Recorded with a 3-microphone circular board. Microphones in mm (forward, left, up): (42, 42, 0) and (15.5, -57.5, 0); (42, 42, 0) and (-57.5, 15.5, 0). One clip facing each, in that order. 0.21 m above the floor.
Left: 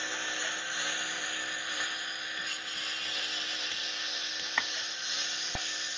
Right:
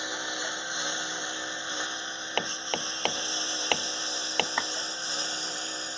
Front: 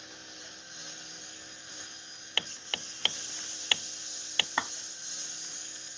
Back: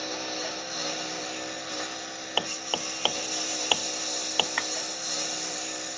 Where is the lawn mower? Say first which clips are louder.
Right 3 dB, back 17 dB; straight behind; by 6.0 s 160° right.